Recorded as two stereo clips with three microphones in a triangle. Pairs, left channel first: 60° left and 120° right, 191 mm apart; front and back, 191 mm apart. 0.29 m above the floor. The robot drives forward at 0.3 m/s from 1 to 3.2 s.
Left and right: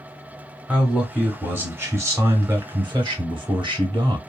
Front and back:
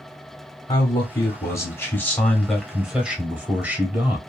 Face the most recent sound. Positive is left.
turn(degrees=-110)